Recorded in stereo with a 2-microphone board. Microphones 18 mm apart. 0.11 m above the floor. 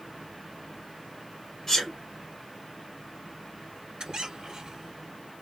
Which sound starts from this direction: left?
A sneeze, at 1.7 s.